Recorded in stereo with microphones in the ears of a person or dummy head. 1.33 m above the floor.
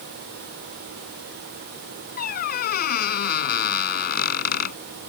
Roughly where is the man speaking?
No man speaking in this recording.